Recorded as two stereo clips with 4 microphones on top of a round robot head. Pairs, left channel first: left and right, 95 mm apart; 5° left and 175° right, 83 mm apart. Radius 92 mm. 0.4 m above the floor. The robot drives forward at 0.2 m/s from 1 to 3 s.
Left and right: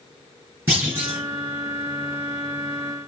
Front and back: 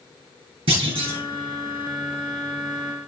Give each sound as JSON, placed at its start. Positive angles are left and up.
{"t": 0.7, "sound": "a clunk", "azimuth_deg": -160, "distance_m": 3.0}